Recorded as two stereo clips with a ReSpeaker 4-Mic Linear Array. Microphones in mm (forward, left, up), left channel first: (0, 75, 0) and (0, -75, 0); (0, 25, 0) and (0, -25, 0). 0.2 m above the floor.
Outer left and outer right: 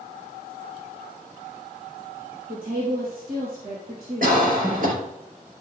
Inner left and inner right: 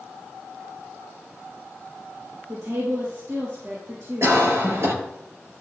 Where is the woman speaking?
70° right (ahead or behind), 5 m.